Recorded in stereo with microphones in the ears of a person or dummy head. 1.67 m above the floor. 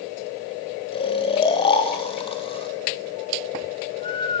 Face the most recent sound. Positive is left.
turn(degrees=25)  # may be behind; listen again after turning